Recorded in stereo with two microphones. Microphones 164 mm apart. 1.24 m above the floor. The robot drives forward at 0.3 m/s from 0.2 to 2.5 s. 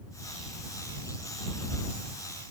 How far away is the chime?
No chime in this recording.